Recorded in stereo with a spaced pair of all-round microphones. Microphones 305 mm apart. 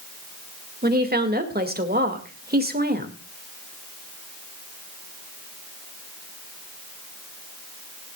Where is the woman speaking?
30° right (ahead or behind), 1.9 m.